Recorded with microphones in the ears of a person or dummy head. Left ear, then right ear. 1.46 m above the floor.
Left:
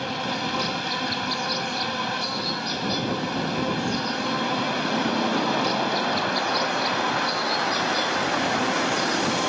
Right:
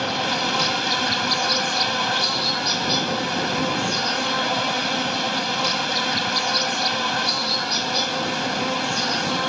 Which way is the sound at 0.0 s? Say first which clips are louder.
Right 5 dB; 20° right (ahead or behind).